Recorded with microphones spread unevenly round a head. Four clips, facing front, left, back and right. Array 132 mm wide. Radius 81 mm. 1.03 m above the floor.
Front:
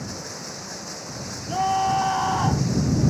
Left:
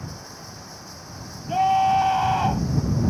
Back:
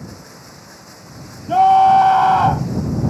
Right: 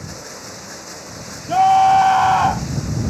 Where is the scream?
165° right.